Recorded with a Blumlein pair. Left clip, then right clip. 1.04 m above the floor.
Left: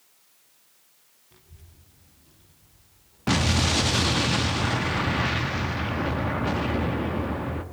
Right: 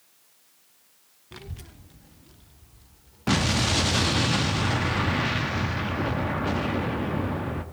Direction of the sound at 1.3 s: 60° right.